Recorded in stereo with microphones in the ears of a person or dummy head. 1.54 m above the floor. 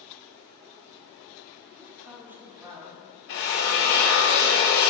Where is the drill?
45° left (ahead or behind), 0.8 m.